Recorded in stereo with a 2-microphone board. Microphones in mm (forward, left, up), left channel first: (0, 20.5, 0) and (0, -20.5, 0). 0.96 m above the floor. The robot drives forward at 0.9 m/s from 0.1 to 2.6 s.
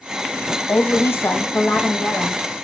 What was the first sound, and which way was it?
A woman speaking, 50° left (ahead or behind).